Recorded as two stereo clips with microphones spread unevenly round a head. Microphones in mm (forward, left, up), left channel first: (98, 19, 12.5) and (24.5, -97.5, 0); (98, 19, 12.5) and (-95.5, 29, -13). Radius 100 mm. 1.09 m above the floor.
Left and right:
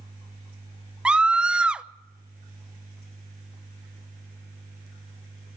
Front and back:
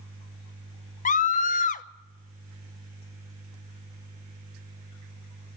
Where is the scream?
45° right, 0.7 m.